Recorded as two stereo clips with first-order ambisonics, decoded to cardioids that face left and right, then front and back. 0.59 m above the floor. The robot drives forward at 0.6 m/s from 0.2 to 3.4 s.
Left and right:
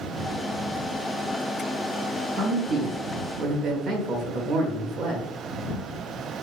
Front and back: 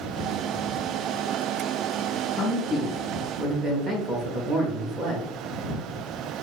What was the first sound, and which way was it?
A man speaking, 55° right.